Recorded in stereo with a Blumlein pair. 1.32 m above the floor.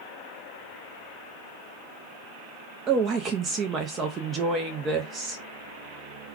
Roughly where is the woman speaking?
Ahead right.